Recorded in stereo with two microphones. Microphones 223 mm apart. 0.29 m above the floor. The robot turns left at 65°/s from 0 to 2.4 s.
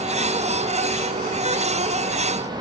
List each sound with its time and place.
Only background noise.